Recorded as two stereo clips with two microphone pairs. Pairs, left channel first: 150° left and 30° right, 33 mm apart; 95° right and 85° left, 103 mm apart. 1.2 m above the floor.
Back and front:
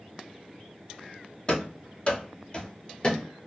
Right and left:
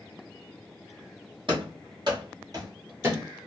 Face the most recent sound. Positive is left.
turn(degrees=125)